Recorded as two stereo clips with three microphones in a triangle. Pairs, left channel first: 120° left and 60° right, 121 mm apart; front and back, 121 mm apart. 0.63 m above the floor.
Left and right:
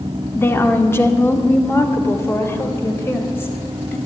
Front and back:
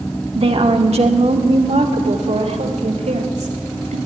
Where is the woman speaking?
175° right, 1.6 m; by 4.0 s 170° right, 3.5 m.